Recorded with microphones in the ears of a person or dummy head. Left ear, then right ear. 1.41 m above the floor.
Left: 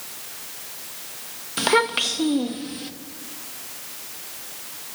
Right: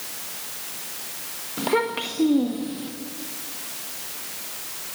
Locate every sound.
1.6 s a child speaking: 60° left (ahead or behind), 1.3 m; by 2.9 s 35° left (ahead or behind), 1.7 m